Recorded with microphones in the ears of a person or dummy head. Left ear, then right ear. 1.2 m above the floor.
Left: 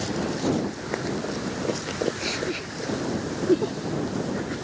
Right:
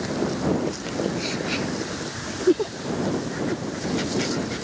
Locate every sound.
Only background noise.